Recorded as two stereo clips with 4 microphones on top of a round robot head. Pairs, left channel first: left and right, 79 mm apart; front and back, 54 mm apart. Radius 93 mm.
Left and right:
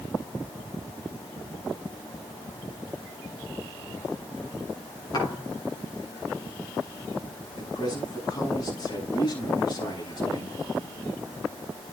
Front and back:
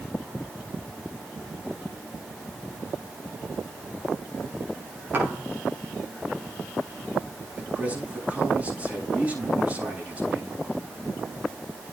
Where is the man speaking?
120° left, 8 m.